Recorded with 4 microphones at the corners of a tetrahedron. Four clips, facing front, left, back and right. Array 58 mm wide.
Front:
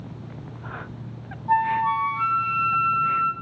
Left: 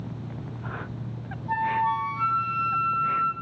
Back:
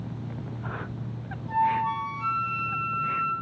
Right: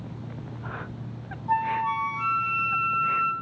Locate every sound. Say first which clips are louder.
1.5 s a flute: even, front 4 dB; 15° right, 2 m